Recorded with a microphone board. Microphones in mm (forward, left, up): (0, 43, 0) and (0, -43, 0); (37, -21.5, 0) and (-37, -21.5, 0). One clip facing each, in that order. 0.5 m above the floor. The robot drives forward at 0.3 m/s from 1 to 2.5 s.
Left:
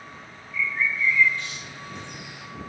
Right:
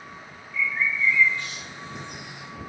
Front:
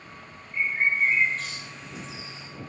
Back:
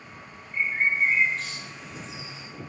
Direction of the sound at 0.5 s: 120° right.